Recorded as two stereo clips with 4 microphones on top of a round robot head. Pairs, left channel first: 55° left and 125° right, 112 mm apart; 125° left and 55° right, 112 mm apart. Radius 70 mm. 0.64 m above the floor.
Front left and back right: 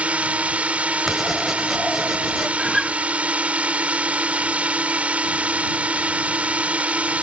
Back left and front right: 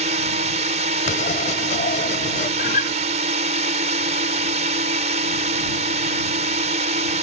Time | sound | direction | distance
0.0 | a drone | 45° right | ?
1.1 | writing | 145° left | ?
2.6 | a guitar | 145° left | ?